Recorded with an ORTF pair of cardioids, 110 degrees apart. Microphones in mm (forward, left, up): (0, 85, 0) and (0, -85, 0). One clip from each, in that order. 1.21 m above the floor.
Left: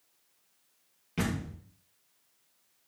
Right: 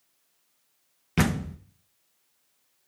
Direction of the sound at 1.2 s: 55° right.